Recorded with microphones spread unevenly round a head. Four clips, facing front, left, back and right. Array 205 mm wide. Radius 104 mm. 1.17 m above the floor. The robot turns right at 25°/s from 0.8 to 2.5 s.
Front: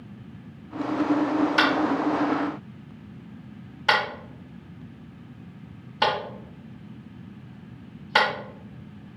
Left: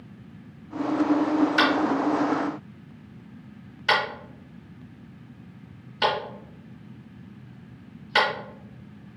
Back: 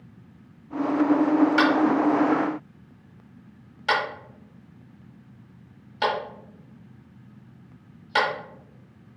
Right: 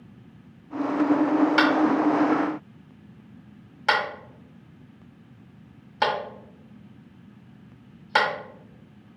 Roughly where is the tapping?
Right.